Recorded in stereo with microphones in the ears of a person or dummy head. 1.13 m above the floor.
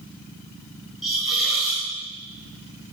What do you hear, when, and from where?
1.0 s a hiss: centre (ahead or behind), 2 m